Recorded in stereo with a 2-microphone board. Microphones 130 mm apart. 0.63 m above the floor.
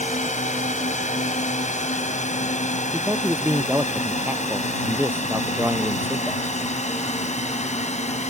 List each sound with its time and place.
0.0 s a drone: 70° left (ahead or behind); by 8.3 s 65° left (ahead or behind)
2.9 s a man speaking: 15° right (ahead or behind)